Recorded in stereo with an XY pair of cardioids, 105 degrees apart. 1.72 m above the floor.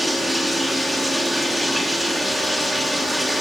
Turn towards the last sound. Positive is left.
turn(degrees=-5)